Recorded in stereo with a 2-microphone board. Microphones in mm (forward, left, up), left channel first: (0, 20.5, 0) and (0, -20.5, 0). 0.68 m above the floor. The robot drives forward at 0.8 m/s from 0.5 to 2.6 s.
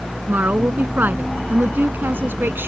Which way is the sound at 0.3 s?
50° right (ahead or behind).